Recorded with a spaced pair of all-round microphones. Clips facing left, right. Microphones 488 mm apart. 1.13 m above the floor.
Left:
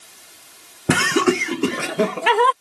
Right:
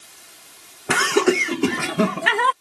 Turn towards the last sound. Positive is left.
turn(degrees=-40)  # may be behind; listen again after turning